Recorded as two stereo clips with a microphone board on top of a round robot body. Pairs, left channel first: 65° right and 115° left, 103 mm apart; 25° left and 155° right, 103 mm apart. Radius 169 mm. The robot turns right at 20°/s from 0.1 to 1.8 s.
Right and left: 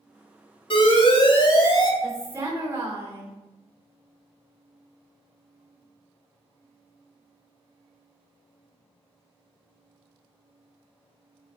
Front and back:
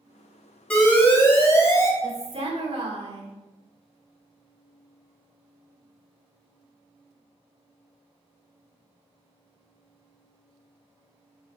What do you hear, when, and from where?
0.7 s an alarm: 50° right, 2.5 m; by 1.9 s 30° right, 2.5 m
2.0 s a woman speaking: straight behind, 2.5 m